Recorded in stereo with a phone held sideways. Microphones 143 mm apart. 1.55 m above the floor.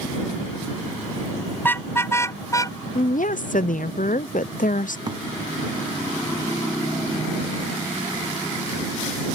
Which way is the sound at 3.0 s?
75° left (ahead or behind).